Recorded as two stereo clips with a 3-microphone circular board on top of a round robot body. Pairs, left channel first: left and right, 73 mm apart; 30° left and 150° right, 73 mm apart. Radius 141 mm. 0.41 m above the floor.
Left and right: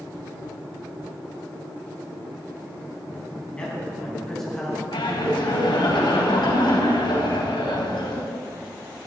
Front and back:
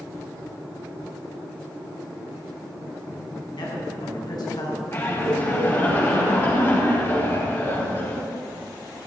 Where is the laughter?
90° left, 4.5 m.